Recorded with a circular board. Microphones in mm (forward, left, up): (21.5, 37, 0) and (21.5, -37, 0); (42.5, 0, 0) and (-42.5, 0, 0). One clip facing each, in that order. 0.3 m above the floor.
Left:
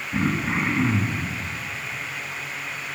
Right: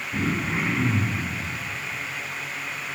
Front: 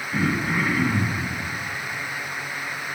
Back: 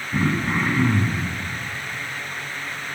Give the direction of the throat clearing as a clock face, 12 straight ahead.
7 o'clock.